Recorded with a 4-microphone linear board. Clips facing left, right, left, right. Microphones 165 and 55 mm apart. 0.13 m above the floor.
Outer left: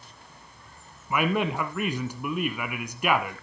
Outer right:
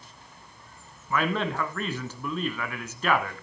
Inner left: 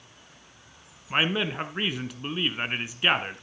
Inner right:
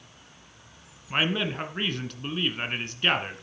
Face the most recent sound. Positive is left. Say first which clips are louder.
# outer left 2 dB, inner left 1 dB
turn(degrees=15)  # may be behind; listen again after turning